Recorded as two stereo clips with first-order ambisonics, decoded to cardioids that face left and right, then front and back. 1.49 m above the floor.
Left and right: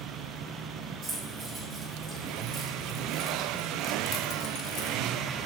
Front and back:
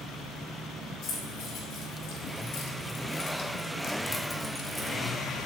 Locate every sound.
1.0 s keys jangling: 30° right, 1.8 m; by 5.0 s 110° left, 0.8 m